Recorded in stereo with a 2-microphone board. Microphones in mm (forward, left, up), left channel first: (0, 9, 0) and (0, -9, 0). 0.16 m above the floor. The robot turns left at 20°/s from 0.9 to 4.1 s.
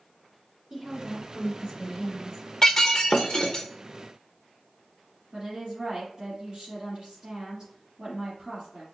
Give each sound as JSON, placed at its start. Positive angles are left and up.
{"t": 0.7, "sound": "a woman speaking", "azimuth_deg": -55, "distance_m": 1.9}
{"t": 2.6, "sound": "breaking glass", "side_deg": 15, "distance_m": 0.9}
{"t": 5.3, "sound": "a woman speaking", "side_deg": -25, "distance_m": 2.5}